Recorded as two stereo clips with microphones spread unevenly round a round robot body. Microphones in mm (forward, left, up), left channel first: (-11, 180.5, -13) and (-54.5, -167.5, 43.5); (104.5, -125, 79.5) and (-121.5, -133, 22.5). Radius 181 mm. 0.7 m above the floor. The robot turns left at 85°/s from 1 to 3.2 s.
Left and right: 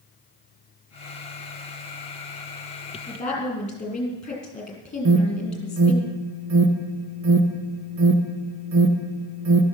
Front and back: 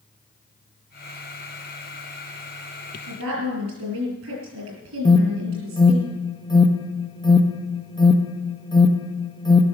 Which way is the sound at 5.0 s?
75° right.